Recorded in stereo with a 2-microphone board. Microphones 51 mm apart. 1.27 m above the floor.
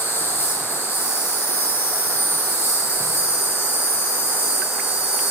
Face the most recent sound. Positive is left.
turn(degrees=55)  # may be behind; listen again after turning